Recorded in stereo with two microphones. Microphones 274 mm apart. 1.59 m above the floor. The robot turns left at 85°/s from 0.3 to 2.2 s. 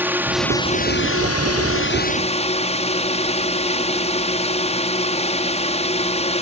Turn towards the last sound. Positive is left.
turn(degrees=25)